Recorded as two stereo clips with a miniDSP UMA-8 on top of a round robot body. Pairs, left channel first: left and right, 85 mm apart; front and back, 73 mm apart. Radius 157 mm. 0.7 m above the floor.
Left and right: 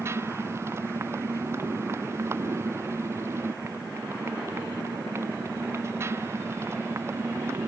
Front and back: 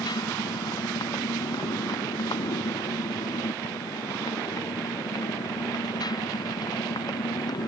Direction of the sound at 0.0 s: 30° right.